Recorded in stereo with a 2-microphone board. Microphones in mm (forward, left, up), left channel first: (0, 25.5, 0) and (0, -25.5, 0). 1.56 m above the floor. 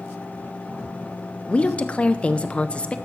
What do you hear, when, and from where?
1.5 s a woman speaking: 25° left (ahead or behind), 0.5 m